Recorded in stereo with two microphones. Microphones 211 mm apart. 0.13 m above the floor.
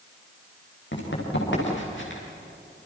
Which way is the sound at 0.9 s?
60° left (ahead or behind).